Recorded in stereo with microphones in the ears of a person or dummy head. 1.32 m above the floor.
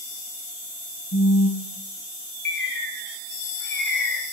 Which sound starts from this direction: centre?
A bird, at 2.5 s.